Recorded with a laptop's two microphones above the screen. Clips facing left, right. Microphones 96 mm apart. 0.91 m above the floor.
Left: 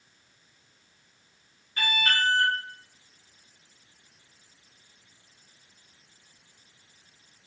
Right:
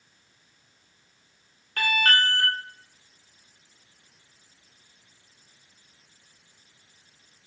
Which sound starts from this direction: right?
An alarm, at 1.8 s.